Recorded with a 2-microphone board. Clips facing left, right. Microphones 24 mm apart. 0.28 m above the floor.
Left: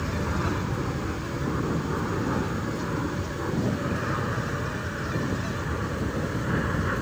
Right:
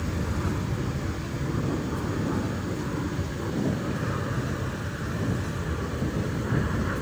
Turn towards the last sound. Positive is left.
turn(degrees=20)  # may be behind; listen again after turning